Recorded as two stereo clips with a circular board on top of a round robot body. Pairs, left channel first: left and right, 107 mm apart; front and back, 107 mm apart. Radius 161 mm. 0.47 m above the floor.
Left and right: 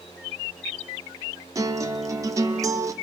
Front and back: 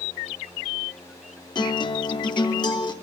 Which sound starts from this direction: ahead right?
A guitar, at 1.6 s.